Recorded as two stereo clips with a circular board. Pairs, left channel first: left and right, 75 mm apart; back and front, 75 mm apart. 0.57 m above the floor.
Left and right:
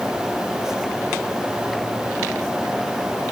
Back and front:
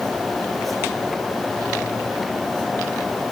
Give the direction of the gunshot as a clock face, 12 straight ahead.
I don't hear a gunshot.